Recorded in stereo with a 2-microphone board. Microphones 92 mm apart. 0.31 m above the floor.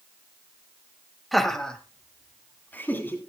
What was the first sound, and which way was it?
Laughter, centre (ahead or behind).